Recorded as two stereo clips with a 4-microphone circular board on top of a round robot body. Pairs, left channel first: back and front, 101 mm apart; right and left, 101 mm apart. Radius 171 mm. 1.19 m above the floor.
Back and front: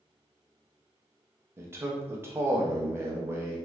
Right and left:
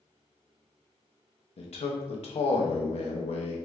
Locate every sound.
1.6 s a man speaking: 70° right, 0.5 m